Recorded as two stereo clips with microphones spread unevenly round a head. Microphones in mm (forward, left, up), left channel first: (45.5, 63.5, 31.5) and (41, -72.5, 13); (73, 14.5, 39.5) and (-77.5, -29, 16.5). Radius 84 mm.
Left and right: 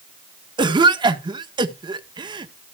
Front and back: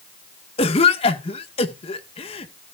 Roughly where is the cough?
Ahead right.